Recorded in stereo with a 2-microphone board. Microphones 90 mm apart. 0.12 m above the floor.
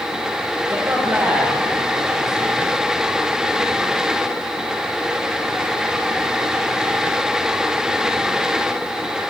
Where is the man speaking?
25° right (ahead or behind), 5 m; by 2.8 s centre (ahead or behind), 5.5 m.